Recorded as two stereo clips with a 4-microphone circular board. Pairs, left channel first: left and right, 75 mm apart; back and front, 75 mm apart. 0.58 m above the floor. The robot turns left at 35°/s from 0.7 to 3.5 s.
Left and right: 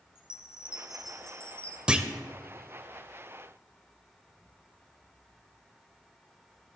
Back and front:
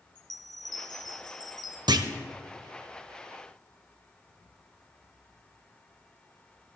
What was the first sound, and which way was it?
A chime, 165° right.